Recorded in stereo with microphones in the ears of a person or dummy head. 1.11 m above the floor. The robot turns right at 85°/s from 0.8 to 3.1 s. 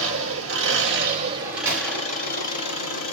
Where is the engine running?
75° right, 2 m; by 3.1 s 120° left, 2 m.